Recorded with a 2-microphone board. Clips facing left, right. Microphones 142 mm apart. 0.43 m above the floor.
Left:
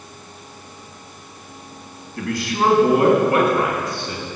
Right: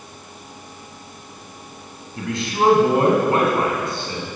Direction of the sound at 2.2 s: 25° right (ahead or behind).